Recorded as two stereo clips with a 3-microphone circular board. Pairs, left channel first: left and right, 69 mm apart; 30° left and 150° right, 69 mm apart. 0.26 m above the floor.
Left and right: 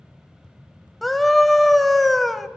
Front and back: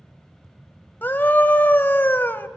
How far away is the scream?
About 1.1 m.